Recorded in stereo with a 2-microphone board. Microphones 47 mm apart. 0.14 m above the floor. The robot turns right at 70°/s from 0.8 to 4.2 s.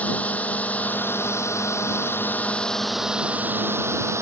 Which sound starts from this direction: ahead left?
A drone, at 0.0 s.